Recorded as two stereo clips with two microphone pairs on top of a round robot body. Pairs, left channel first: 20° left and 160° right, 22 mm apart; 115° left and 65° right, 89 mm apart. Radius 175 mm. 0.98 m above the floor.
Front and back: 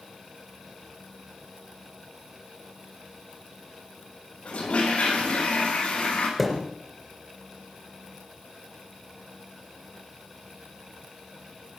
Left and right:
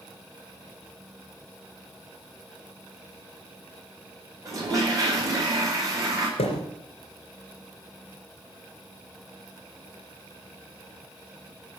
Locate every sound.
4.5 s a toilet flushing: 15° right, 8 m
6.4 s a thud: 110° left, 3 m